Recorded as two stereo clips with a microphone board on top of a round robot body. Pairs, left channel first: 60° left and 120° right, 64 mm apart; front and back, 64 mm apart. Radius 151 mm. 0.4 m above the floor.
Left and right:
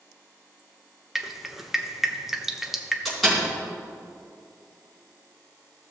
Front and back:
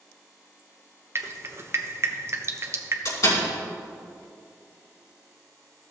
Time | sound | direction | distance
1.1 | dripping | 155° left | 1.0 m
3.0 | a door slam | 30° right | 3.5 m